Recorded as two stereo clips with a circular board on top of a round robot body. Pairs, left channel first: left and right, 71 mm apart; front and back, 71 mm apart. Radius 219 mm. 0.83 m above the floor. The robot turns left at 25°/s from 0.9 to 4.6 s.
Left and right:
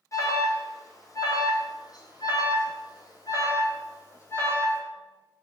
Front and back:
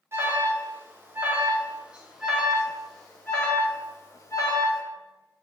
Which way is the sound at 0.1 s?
130° left.